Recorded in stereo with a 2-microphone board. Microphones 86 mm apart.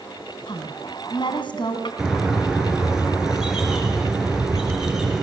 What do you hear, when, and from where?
0.5 s a woman speaking: 65° left (ahead or behind), 3.5 m
2.0 s a bird: 5° right (ahead or behind), 4.5 m